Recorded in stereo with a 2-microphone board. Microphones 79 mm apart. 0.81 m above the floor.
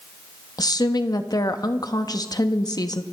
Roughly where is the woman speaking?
Left.